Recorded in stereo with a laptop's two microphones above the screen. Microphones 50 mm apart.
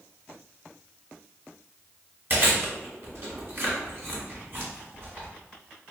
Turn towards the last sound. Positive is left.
turn(degrees=-45)  # may be behind; listen again after turning